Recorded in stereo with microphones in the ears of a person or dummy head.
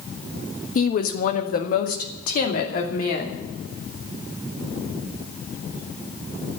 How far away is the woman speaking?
About 1.3 m.